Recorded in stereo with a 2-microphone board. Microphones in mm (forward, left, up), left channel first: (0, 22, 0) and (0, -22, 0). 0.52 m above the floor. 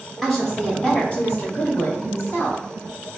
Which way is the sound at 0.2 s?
10° left (ahead or behind).